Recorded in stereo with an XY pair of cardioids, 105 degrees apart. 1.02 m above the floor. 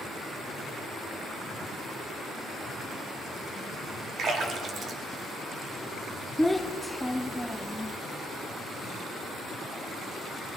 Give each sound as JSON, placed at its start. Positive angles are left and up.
{"t": 4.2, "sound": "a splash", "azimuth_deg": -55, "distance_m": 2.5}
{"t": 6.4, "sound": "a child speaking", "azimuth_deg": 5, "distance_m": 0.8}